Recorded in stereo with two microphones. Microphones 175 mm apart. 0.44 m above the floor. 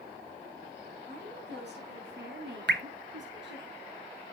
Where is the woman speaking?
65° right (ahead or behind), 4.5 m; by 3.7 s 80° right, 6 m.